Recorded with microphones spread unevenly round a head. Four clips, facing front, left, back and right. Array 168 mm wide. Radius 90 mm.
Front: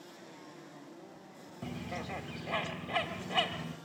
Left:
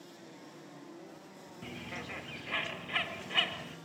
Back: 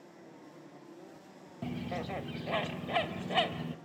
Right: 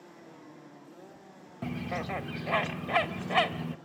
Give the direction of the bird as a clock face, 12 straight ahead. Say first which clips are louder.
Right 10 dB, back 3 dB; 4 o'clock.